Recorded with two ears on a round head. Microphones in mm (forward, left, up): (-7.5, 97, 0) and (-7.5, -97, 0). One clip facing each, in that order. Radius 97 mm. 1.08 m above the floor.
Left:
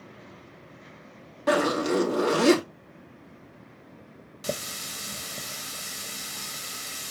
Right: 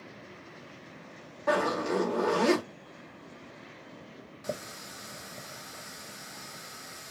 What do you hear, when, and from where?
1.5 s a zipper: 40° left (ahead or behind), 2.5 m
4.4 s a running tap: 40° left (ahead or behind), 0.6 m